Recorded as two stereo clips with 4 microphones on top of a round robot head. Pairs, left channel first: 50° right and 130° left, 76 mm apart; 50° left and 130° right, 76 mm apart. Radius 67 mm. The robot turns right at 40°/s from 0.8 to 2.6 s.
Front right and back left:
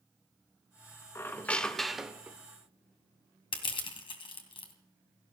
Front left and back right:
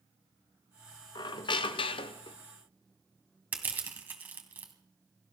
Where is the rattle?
I don't hear a rattle.